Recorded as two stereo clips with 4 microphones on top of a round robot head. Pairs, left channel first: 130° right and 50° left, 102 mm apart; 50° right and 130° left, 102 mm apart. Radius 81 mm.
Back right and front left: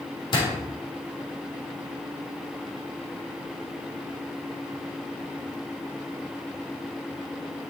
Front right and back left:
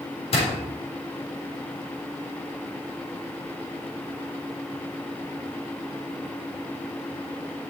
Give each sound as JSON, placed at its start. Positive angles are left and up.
{"t": 0.3, "sound": "a door slam", "azimuth_deg": -80, "distance_m": 4.0}